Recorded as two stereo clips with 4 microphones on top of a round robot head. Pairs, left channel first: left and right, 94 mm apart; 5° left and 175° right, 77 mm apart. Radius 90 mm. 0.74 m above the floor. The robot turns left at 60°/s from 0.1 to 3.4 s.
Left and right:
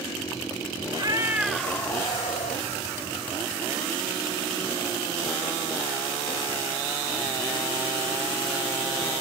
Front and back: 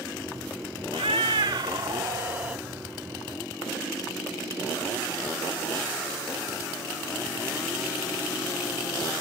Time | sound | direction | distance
0.9 | a cat meowing | 145° right | 0.5 m